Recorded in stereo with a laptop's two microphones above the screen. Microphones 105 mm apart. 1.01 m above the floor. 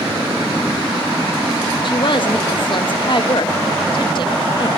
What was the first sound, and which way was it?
A woman speaking, 50° left (ahead or behind).